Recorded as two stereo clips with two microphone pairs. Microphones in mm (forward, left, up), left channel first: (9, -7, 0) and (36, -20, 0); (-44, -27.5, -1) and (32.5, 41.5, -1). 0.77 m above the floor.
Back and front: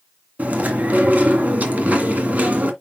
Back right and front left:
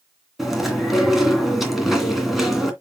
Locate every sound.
0.4 s chewing: 45° right, 2 m